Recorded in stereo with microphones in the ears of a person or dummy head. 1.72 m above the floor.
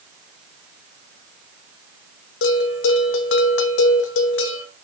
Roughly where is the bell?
Left.